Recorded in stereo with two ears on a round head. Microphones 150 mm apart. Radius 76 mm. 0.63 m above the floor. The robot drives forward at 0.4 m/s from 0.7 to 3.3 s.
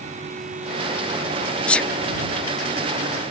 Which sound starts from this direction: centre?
A sneeze, at 1.7 s.